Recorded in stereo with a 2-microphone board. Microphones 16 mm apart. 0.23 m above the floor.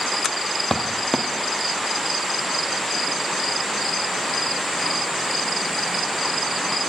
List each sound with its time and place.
0.7 s footsteps: 30° left (ahead or behind), 0.5 m